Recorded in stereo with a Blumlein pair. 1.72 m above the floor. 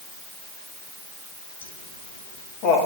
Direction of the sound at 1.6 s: 70° left.